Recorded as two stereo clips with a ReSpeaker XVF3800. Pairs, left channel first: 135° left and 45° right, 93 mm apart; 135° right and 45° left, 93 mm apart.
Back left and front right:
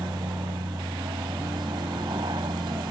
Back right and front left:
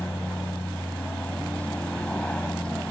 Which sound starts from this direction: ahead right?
An aircraft, at 0.0 s.